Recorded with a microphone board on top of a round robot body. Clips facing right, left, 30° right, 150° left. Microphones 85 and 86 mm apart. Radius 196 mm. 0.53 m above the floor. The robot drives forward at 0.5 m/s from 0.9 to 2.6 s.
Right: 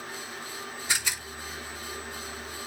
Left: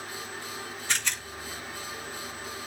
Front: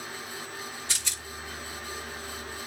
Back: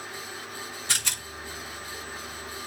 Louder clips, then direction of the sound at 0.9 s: Even, back 5 dB; 170° right.